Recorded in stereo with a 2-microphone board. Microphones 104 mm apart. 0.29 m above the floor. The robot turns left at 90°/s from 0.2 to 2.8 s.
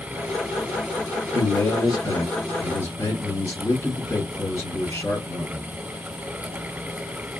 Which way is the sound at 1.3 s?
165° left.